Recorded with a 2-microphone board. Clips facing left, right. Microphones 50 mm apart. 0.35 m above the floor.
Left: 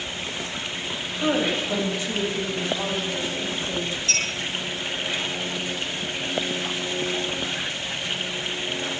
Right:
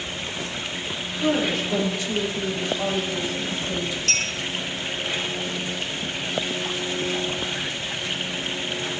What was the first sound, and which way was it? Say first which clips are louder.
A woman speaking: right 1 dB; 30° left (ahead or behind).